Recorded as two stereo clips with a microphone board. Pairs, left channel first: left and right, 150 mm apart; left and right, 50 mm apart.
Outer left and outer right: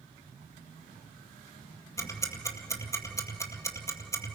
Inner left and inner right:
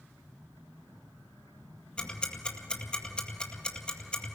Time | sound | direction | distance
2.0 | ticking | 20° left (ahead or behind) | 2.0 m